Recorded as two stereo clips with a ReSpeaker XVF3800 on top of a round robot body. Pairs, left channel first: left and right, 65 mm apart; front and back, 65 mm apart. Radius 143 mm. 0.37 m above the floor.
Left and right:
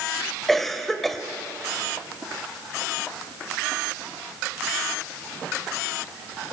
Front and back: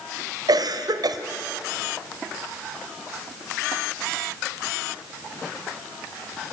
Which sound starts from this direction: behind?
A cough, at 0.5 s.